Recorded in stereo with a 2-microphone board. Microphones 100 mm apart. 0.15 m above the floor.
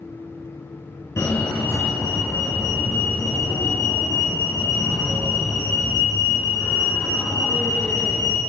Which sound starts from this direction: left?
A fire alarm, at 1.2 s.